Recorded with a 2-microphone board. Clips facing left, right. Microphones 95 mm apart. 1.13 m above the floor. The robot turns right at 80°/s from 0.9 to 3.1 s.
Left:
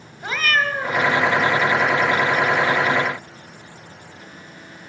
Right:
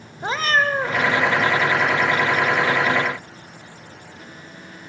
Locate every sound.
0.2 s a cat meowing: 30° right (ahead or behind), 1.0 m